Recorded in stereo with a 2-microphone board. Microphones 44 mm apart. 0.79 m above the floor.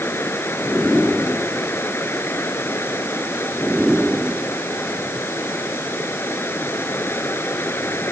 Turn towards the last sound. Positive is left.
turn(degrees=65)  # may be behind; listen again after turning